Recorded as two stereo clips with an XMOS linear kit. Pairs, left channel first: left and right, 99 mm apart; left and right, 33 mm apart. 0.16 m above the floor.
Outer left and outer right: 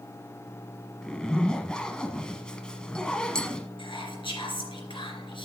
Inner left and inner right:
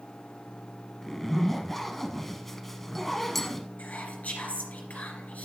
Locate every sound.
1.0 s a zipper: 10° left (ahead or behind), 0.8 m
3.8 s whispering: 60° left (ahead or behind), 3 m